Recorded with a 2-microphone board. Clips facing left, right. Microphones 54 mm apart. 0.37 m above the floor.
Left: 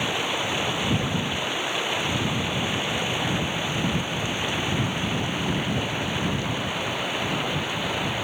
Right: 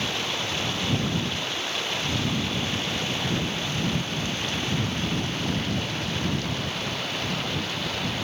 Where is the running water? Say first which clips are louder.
Left 3 dB; 15° left (ahead or behind).